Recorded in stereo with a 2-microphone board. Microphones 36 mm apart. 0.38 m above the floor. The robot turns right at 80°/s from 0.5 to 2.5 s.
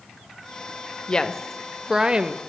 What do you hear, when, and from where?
1.1 s a woman speaking: 135° left, 1.1 m; by 2.4 s 120° right, 1.1 m